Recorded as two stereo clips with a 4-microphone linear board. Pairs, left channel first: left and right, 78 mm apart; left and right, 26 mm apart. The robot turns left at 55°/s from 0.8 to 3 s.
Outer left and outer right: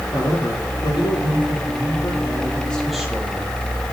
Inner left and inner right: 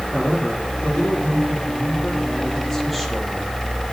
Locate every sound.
0.1 s a man speaking: 120° left, 6 m; by 3.6 s 5° right, 6 m